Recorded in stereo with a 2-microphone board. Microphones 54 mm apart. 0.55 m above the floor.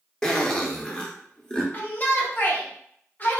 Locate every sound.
0.2 s a zipper: 15° left (ahead or behind), 0.6 m
1.7 s a shout: 30° left (ahead or behind), 0.7 m